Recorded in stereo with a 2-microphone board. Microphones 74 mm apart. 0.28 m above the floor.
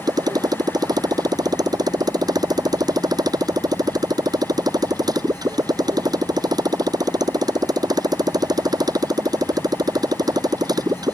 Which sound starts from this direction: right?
A motorcycle, at 0.0 s.